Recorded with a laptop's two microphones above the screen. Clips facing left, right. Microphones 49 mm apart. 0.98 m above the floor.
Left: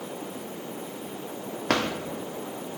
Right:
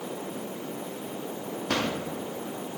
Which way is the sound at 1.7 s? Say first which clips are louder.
Left 3 dB; 75° left (ahead or behind).